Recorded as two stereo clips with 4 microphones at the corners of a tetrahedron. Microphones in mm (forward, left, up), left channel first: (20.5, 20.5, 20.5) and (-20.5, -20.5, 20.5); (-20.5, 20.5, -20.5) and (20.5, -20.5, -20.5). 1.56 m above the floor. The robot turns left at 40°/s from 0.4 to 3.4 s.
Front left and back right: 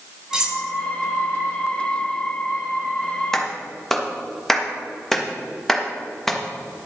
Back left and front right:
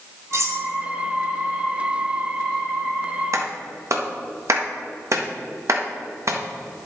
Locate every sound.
0.3 s cutlery clinking: 60° right, 1.5 m; by 0.6 s 70° right, 1.5 m
3.3 s a clap: 35° right, 1.3 m